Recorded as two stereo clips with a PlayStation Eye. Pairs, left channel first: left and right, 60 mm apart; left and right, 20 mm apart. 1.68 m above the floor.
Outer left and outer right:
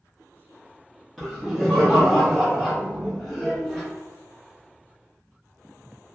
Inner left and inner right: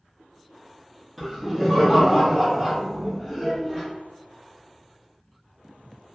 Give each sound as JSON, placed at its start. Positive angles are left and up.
{"t": 1.2, "sound": "laughter", "side_deg": 5, "distance_m": 0.8}
{"t": 3.3, "sound": "a child speaking", "side_deg": -10, "distance_m": 0.7}